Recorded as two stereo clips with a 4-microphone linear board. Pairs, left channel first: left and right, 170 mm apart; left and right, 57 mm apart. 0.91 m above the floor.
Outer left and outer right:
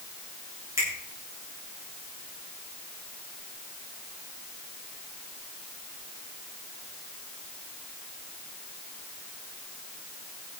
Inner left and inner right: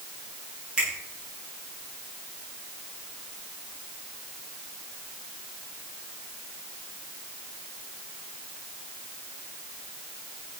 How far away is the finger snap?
About 8.5 m.